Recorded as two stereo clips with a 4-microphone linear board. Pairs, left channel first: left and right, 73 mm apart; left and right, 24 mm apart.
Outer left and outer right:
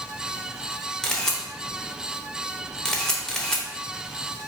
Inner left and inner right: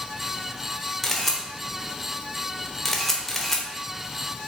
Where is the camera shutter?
5° left (ahead or behind), 1.0 m.